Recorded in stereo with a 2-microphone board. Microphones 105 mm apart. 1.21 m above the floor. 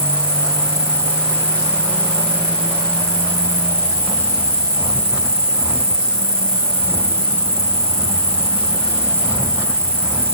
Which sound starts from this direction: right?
An insect, at 0.0 s.